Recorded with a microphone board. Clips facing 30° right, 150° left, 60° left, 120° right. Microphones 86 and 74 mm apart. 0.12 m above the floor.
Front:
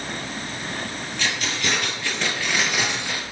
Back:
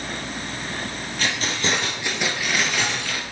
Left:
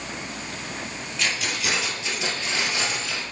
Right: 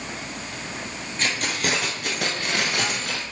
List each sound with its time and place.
1.2 s keys jangling: 165° right, 1.9 m; by 3.2 s 90° right, 1.6 m